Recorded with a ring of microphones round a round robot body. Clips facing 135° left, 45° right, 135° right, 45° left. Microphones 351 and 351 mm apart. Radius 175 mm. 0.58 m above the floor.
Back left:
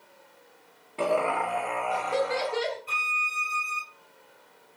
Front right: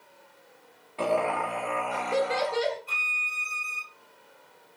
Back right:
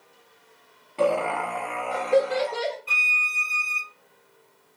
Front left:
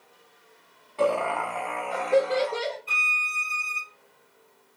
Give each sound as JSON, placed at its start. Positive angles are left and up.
{"t": 1.0, "sound": "laughter", "azimuth_deg": -170, "distance_m": 0.8}
{"t": 2.9, "sound": "a violin", "azimuth_deg": -160, "distance_m": 1.0}